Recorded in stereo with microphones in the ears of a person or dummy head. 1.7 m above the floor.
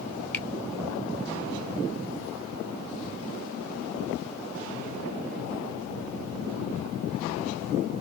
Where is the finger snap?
10° left (ahead or behind), 1.0 m.